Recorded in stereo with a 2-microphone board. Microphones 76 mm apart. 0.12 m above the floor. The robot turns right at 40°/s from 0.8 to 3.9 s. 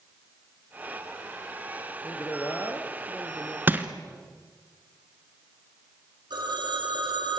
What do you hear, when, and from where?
2.0 s a woman speaking: 120° left, 3 m; by 3.6 s straight behind, 3 m
3.7 s crushing: 25° right (ahead or behind), 1.6 m; by 3.9 s 20° right (ahead or behind), 1.6 m
6.3 s a phone ringing: 75° right (ahead or behind), 3.5 m